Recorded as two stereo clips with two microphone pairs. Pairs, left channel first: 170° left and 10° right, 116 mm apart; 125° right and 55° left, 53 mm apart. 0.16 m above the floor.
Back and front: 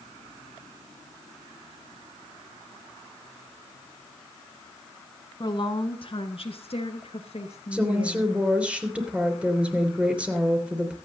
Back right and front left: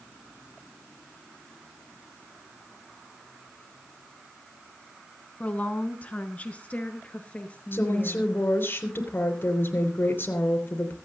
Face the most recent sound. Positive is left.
turn(degrees=-85)